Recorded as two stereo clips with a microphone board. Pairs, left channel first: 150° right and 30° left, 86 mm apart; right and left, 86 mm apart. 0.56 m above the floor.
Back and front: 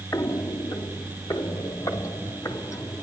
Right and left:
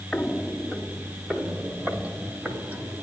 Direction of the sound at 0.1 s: 165° right.